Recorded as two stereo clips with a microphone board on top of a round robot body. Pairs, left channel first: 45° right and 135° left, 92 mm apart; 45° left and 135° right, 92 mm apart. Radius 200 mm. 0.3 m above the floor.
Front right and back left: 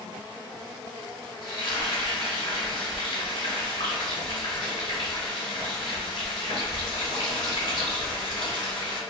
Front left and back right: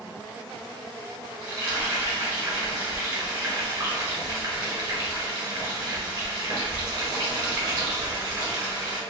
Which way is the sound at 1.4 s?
85° right.